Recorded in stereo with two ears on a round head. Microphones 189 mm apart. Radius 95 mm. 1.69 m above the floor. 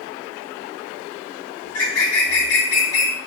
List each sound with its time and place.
1.6 s a bird: 75° left (ahead or behind), 0.7 m